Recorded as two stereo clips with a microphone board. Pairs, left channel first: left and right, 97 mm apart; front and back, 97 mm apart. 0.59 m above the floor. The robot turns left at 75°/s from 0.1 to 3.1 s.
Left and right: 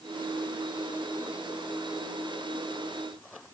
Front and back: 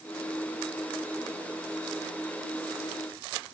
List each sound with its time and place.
Only background noise.